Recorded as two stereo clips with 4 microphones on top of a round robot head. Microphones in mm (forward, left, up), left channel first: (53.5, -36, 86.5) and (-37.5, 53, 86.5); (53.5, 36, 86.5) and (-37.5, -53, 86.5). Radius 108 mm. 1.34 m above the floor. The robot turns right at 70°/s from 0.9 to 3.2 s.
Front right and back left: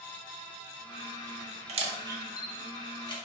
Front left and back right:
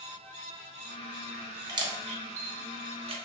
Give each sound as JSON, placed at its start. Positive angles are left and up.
{"t": 1.7, "sound": "a camera shutter", "azimuth_deg": 165, "distance_m": 0.6}